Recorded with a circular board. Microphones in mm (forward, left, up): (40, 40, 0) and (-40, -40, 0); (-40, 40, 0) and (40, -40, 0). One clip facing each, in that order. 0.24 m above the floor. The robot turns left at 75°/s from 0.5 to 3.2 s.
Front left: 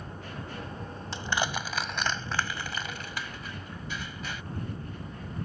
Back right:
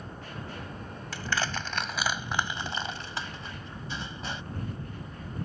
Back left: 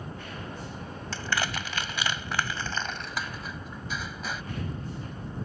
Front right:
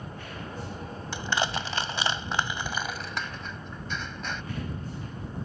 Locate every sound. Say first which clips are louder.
1.1 s crushing: front left 1 dB, front right 2 dB; 10° left; by 4.4 s 145° right